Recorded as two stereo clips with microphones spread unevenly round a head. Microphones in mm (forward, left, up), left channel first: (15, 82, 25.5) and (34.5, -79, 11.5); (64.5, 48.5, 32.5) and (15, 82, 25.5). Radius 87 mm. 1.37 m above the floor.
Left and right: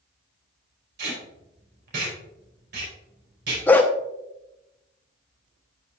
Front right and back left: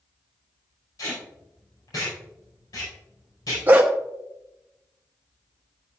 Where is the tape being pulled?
70° right, 5 m.